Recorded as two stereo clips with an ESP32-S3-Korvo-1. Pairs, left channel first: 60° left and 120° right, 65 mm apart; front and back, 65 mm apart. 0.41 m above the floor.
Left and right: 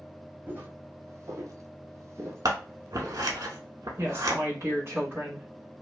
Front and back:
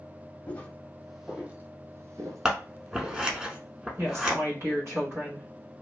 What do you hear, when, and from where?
0.5 s footsteps: 65° right, 0.8 m; by 3.3 s straight behind, 1.1 m
2.5 s scissors: 105° right, 0.6 m
4.0 s a woman speaking: 155° right, 1.5 m